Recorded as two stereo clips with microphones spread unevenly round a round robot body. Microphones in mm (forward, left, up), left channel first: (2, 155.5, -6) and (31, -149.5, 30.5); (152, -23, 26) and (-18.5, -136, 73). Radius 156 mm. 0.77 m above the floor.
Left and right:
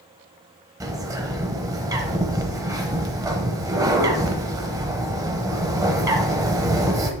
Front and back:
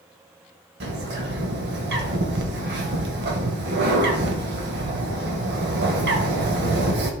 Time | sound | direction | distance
0.8 | a bird | 160° right | 0.8 m